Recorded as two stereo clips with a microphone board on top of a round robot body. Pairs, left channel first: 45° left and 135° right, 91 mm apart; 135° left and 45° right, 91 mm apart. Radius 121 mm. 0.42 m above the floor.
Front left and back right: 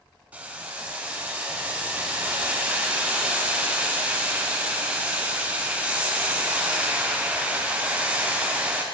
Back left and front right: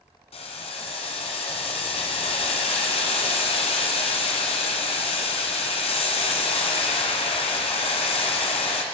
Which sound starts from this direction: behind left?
Boiling, at 0.3 s.